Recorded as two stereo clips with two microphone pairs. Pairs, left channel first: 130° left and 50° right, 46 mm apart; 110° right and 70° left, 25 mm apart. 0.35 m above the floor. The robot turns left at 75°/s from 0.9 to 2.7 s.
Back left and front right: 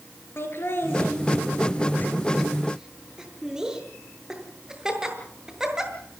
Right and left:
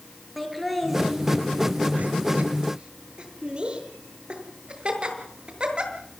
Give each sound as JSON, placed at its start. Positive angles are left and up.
{"t": 0.4, "sound": "laughter", "azimuth_deg": 160, "distance_m": 7.0}